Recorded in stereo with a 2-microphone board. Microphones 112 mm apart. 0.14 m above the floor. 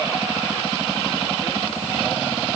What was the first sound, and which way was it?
Only background noise.